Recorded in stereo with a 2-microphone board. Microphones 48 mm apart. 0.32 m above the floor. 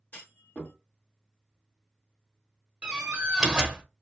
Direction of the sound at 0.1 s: 40° left (ahead or behind).